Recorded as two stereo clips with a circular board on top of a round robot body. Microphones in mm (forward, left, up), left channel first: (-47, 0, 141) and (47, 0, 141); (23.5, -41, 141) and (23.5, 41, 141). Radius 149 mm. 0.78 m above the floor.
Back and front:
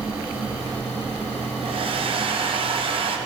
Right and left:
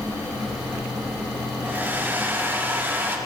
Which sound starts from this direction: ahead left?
A hair dryer, at 1.6 s.